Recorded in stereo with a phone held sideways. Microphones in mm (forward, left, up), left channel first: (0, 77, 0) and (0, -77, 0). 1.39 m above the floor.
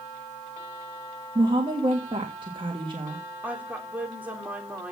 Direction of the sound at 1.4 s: 35° right (ahead or behind).